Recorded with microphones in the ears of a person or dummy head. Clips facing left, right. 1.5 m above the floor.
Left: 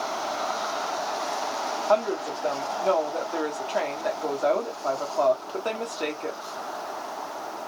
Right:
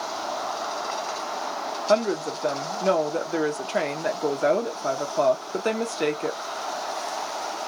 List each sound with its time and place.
1.9 s a woman speaking: 30° right (ahead or behind), 0.6 m